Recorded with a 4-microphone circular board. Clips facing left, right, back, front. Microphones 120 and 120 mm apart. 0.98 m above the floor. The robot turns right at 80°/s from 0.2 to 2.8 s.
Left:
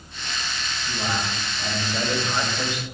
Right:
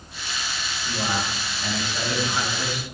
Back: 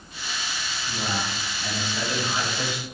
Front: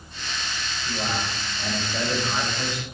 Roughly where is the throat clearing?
No throat clearing in this recording.